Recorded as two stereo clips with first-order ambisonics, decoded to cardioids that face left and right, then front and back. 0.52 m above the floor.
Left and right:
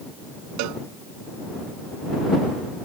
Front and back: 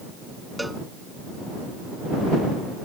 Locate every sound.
0.6 s a cowbell: 95° right